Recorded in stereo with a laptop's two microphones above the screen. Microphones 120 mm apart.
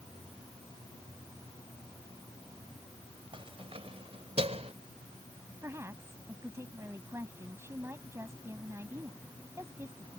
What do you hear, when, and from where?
3.3 s keys jangling: 50° right (ahead or behind); by 4.7 s 65° right (ahead or behind)
5.6 s a woman speaking: 25° right (ahead or behind)